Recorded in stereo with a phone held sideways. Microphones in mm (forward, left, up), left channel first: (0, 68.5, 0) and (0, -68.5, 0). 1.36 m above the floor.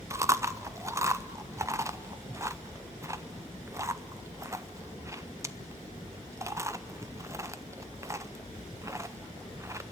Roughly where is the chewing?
Right.